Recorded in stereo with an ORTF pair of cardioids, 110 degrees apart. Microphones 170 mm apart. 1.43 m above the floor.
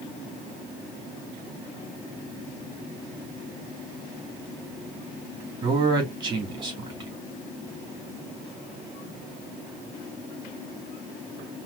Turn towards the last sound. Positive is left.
turn(degrees=-25)